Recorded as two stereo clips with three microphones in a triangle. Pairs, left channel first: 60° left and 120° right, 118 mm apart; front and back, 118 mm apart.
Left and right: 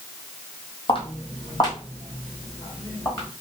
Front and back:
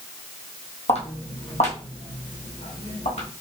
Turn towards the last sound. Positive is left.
turn(degrees=-10)